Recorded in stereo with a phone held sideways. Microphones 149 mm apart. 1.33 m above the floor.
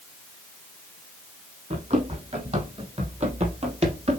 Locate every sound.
1.7 s running footsteps: 45° right (ahead or behind), 4 m